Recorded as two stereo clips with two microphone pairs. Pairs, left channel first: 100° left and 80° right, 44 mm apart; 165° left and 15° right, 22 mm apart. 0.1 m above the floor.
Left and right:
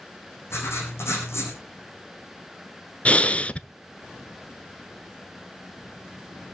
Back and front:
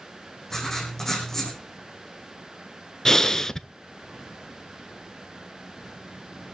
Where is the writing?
95° left, 6 m.